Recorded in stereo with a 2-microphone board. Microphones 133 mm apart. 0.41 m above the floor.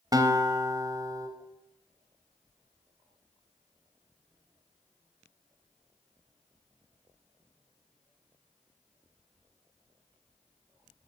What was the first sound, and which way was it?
A guitar, 30° right (ahead or behind).